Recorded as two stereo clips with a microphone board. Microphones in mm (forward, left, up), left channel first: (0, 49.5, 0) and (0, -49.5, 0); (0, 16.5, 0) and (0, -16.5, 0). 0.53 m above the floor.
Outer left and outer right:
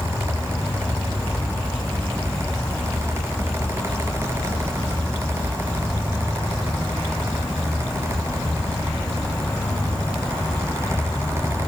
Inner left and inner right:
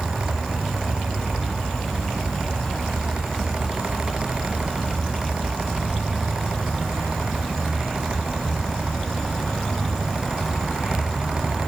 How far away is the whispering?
I don't hear whispering.